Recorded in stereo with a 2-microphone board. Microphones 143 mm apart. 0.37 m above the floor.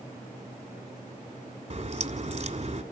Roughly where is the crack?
Right.